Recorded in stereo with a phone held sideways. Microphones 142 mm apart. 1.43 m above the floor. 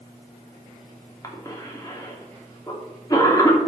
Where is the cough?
25° left (ahead or behind), 3 m.